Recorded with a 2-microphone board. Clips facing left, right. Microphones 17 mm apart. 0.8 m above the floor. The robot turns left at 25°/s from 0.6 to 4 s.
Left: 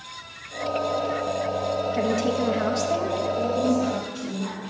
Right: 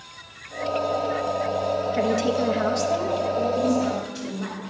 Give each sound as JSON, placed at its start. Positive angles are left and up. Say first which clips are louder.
{"t": 2.0, "sound": "a woman speaking", "louder": "right 2 dB", "side_deg": -10, "distance_m": 0.7}
{"t": 3.3, "sound": "a woman speaking", "louder": "even", "side_deg": -5, "distance_m": 2.5}